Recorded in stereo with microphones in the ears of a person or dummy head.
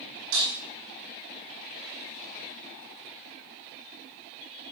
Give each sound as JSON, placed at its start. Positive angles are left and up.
{"t": 0.3, "sound": "breaking glass", "side_deg": -80, "distance_m": 8.0}